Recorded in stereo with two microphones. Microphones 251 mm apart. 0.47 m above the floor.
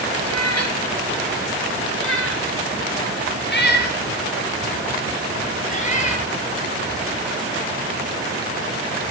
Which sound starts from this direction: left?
A cat meowing, at 0.2 s.